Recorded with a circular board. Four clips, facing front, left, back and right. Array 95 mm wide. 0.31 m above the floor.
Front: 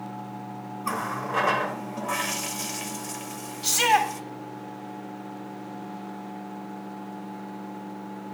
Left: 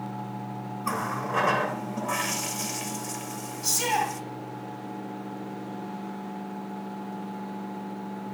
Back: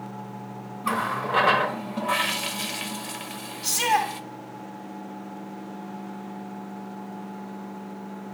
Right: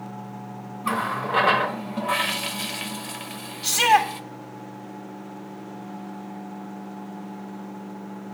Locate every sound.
0.8 s a running tap: 130° right, 0.6 m
3.6 s a shout: 60° right, 1.6 m